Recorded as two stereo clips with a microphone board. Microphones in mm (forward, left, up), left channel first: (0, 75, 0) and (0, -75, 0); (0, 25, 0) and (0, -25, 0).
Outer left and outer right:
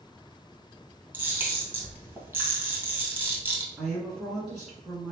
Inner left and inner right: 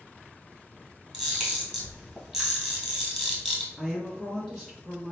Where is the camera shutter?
15° right (ahead or behind), 1.7 m.